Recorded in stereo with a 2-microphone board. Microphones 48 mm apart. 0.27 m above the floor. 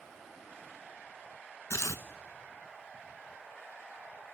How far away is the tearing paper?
About 0.8 m.